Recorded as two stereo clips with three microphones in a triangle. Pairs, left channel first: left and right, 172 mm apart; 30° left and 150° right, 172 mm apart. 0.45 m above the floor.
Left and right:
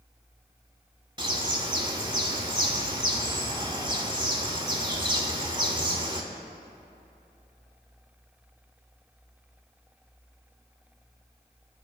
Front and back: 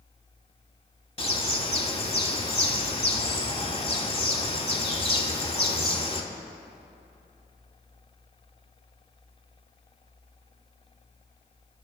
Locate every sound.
1.2 s a bird: 30° right, 0.8 m